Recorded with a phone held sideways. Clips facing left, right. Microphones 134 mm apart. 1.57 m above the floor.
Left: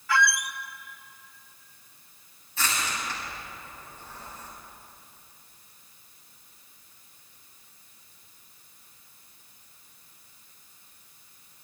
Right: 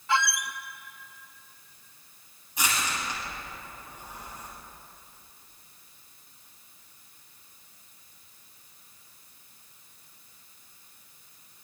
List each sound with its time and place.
0.1 s a squeak: 25° right (ahead or behind), 0.6 m
2.6 s crushing: 15° right (ahead or behind), 8.5 m